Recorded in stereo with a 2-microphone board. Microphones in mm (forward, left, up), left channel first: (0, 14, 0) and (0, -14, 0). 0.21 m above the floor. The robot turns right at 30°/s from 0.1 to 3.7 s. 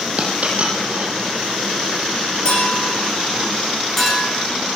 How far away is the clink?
About 7 m.